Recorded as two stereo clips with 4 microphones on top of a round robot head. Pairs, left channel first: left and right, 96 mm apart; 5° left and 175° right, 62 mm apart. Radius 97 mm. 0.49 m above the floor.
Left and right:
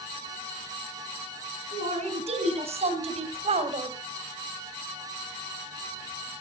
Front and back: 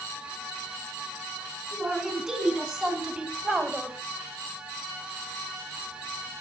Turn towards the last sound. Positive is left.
turn(degrees=-90)